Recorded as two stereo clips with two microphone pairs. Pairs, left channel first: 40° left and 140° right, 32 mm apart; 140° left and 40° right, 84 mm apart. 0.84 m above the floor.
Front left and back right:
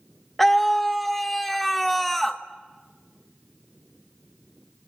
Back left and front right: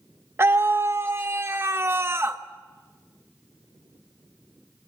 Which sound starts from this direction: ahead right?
A scream, at 0.4 s.